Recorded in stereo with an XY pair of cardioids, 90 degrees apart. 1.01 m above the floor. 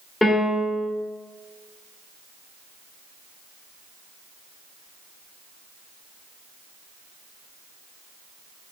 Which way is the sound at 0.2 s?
20° left.